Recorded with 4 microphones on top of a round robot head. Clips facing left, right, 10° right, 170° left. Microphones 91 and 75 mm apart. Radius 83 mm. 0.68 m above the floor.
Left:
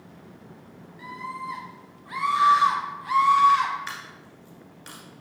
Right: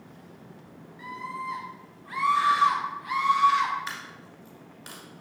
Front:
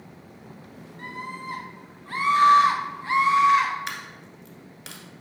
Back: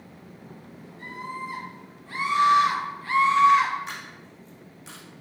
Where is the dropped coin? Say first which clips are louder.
Even, front 2 dB; 15° right, 1.2 m.